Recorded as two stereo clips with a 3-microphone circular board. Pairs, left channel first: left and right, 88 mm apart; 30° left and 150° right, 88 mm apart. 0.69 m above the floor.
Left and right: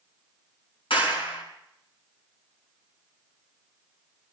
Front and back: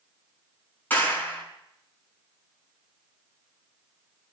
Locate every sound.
0.9 s a clap: 100° left, 5.5 m